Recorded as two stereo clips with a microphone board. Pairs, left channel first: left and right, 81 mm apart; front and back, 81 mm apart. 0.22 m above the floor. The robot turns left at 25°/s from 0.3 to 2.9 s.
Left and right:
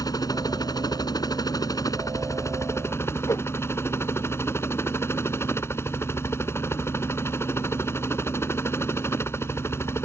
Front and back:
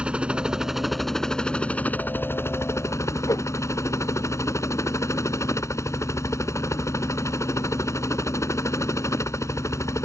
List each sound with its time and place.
0.0 s a helicopter: 105° left; by 10.1 s 40° left
3.3 s a whoosh: 45° left